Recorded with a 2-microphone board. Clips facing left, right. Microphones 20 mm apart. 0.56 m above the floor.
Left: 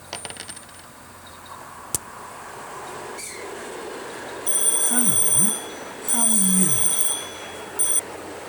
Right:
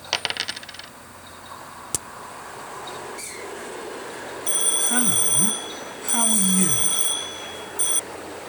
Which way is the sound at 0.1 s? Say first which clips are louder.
Right 10 dB; 45° right (ahead or behind).